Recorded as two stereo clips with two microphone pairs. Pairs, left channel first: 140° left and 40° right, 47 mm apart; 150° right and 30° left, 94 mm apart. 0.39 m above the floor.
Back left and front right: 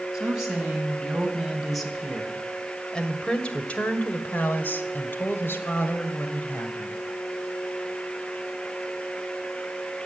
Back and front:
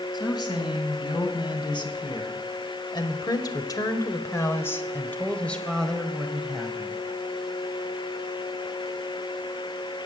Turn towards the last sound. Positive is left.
turn(degrees=115)